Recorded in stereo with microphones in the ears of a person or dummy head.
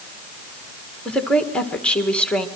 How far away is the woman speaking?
About 1.7 m.